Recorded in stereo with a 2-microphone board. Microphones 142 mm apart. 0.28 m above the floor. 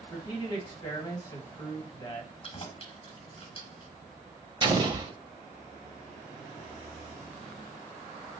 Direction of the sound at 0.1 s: 30° left (ahead or behind).